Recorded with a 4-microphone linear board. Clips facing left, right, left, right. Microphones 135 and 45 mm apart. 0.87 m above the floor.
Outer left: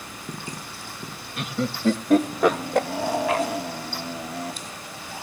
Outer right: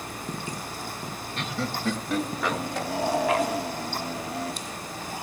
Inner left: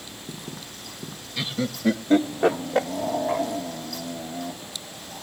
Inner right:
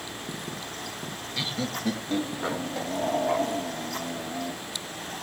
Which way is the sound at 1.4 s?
10° left (ahead or behind).